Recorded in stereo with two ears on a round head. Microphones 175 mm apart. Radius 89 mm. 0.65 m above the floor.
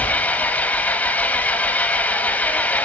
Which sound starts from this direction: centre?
An engine running, at 0.0 s.